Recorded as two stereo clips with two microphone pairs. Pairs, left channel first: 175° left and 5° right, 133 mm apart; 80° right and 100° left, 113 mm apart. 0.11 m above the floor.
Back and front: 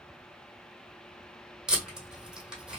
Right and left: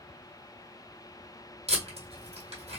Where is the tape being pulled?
80° left, 1.8 m.